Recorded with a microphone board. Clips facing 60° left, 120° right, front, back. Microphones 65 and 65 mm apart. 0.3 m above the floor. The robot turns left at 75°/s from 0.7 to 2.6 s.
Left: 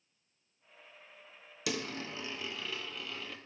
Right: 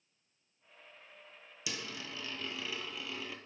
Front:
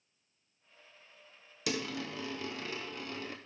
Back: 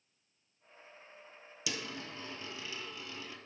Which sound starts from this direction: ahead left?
A dropped coin, at 1.7 s.